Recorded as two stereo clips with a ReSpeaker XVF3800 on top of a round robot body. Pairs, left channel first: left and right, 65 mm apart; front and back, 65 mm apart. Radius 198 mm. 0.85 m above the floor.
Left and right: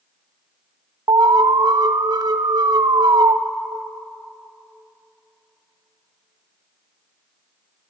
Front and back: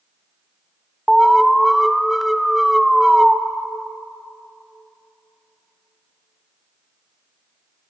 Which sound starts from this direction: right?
An alarm, at 1.1 s.